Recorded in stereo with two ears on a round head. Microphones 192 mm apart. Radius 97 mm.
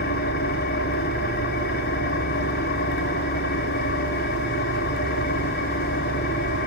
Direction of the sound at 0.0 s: 45° left (ahead or behind).